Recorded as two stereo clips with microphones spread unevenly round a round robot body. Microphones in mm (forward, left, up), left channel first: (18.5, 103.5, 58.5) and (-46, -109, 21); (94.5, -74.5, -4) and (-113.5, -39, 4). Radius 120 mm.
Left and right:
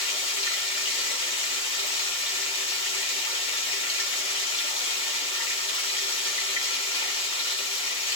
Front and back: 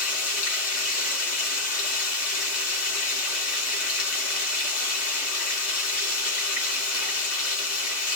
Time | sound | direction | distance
0.0 | running water | 5° left | 3 m